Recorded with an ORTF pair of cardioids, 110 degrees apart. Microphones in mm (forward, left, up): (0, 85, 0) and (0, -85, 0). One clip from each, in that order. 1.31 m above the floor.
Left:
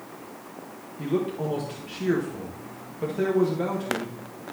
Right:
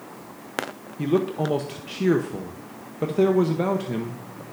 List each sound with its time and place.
1.0 s a man speaking: 35° right, 1.0 m